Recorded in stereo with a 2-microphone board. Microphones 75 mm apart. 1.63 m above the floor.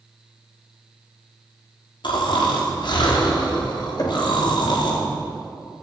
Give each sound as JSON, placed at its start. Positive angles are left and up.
{"t": 2.0, "sound": "snoring", "side_deg": 80, "distance_m": 4.0}
{"t": 4.0, "sound": "knocking", "side_deg": 55, "distance_m": 3.5}